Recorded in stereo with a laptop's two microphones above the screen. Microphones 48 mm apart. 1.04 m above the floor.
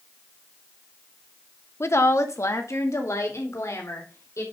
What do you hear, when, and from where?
1.8 s a woman speaking: 60° left (ahead or behind), 1.0 m; by 4.4 s 85° left, 4.5 m